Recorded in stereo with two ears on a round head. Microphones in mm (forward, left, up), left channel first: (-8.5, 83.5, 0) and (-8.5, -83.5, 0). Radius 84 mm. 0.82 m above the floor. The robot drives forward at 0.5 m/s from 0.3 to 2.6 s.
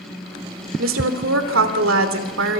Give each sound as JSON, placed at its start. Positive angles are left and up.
{"t": 0.8, "sound": "a woman speaking", "side_deg": -70, "distance_m": 3.0}